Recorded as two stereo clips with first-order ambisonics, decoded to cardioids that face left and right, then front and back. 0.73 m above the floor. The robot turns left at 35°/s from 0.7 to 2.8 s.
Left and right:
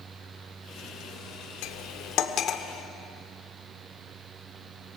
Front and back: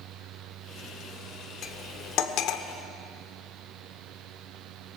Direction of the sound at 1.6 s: 65° left.